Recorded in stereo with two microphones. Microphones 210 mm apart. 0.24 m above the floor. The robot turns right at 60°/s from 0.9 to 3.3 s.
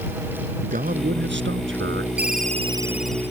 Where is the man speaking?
135° right; by 2.1 s 65° right.